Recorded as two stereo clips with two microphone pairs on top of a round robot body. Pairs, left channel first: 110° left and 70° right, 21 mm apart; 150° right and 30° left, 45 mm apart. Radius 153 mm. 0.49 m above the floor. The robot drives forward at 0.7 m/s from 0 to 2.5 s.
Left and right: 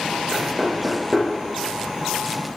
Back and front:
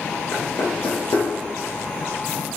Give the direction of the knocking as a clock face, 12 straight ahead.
5 o'clock.